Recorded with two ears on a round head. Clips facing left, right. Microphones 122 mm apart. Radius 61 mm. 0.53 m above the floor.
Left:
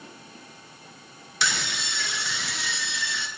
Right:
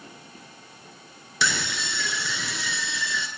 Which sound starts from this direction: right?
A scream, at 1.4 s.